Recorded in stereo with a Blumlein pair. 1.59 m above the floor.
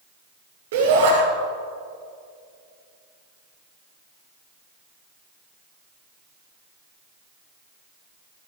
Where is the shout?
55° right, 5.5 m.